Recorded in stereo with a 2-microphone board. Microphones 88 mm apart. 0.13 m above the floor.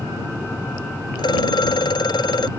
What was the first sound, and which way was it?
A phone ringing, 55° left (ahead or behind).